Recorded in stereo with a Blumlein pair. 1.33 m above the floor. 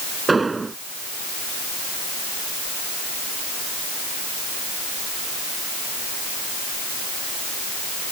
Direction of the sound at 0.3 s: 10° right.